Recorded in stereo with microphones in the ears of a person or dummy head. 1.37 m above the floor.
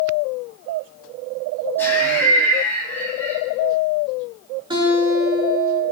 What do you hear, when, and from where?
1.8 s laughter: 10° left (ahead or behind), 8.5 m
4.7 s a guitar: 25° right (ahead or behind), 6 m